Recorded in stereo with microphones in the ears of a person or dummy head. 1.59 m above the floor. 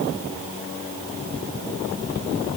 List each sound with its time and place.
Only background noise.